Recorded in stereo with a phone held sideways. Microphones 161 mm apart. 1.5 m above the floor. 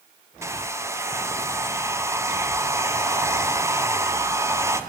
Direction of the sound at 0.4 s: 15° right (ahead or behind).